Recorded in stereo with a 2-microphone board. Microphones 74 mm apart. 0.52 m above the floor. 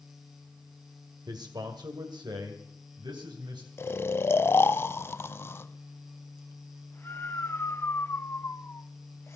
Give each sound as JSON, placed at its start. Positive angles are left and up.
{"t": 1.3, "sound": "a man speaking", "side_deg": -65, "distance_m": 1.6}
{"t": 3.8, "sound": "snoring", "side_deg": 35, "distance_m": 0.5}